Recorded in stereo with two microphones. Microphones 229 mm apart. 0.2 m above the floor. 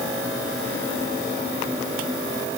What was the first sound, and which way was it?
Only background noise.